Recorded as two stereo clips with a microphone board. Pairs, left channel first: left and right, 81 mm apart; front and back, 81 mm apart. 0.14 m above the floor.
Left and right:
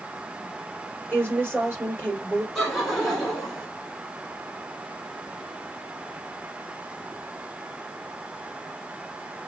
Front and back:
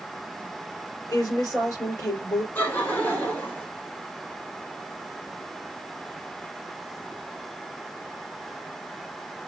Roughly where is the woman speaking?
Ahead right.